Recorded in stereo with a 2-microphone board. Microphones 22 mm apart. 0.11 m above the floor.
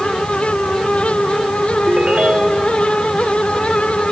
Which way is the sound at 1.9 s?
50° right (ahead or behind).